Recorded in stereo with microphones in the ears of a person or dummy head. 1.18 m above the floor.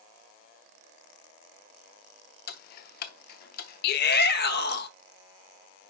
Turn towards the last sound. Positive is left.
turn(degrees=60)  # may be behind; listen again after turning